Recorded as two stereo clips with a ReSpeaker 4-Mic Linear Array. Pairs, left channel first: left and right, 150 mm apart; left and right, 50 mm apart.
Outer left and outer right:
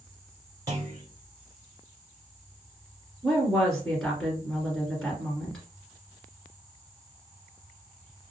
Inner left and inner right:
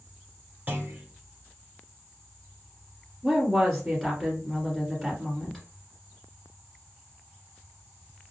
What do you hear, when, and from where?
0.7 s a clunk: 30° right (ahead or behind), 1.5 m
3.2 s a woman speaking: 5° left (ahead or behind), 1.6 m